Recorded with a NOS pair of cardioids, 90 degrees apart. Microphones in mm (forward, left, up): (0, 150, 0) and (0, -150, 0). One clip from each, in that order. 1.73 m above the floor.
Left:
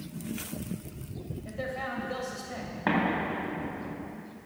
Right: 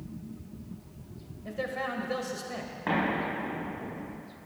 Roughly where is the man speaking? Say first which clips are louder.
Right 2 dB; ahead.